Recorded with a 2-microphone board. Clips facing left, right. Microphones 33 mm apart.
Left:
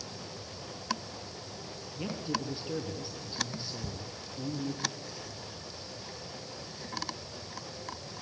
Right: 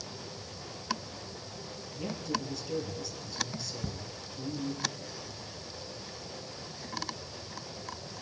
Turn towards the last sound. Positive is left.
turn(degrees=-45)  # may be behind; listen again after turning